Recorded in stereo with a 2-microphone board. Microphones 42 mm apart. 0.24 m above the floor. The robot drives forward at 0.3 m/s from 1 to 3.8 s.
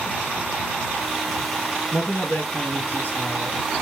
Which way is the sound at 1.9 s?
60° left (ahead or behind).